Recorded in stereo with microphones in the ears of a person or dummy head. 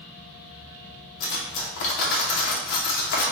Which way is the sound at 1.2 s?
50° left (ahead or behind).